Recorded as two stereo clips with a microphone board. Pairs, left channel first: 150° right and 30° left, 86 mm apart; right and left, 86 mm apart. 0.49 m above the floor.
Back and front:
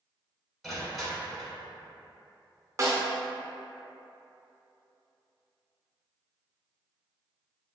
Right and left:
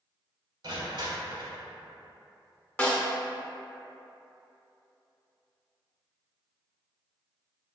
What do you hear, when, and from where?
0.6 s crushing: 120° left, 1.0 m
2.8 s a snare drum: 20° right, 0.5 m